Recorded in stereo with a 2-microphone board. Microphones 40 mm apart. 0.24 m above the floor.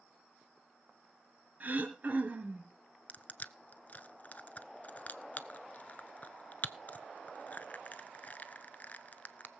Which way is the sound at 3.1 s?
40° left (ahead or behind).